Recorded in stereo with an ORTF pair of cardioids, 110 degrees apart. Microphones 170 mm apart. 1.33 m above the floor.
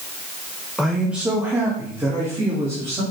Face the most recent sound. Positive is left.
turn(degrees=-20)